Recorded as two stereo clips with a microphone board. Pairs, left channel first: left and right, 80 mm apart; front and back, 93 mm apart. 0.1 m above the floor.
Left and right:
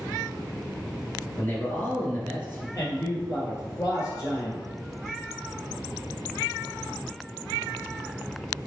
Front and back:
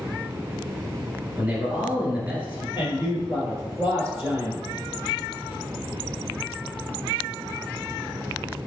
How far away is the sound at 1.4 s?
About 1.7 m.